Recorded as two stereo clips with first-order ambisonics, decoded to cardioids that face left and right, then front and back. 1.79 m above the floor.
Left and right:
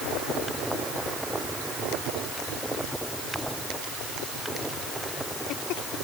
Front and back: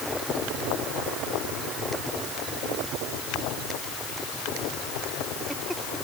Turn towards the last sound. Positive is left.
No sound to turn to.